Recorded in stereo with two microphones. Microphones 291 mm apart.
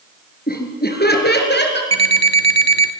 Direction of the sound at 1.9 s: 60° right (ahead or behind).